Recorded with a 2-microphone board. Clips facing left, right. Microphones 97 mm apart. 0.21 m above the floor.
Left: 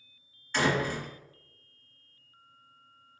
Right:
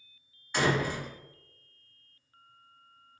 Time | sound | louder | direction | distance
0.5 | a door slam | even | 15° right (ahead or behind) | 1.2 m